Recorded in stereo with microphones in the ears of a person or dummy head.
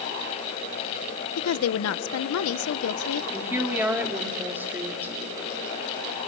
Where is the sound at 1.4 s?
85° left, 0.6 m.